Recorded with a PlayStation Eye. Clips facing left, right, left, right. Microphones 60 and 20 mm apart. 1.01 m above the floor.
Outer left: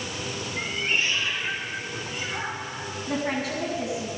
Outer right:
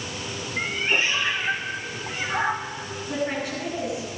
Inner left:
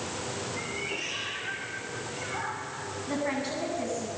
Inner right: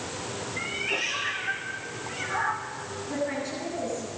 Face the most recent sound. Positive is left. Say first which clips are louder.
# even, even
turn(degrees=85)